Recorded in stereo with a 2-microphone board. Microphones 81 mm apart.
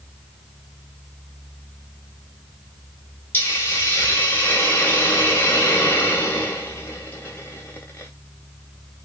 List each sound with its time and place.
3.3 s a hiss: 25° left (ahead or behind), 0.7 m